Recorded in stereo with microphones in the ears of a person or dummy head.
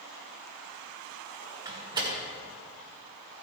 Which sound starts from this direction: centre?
A door slam, at 1.6 s.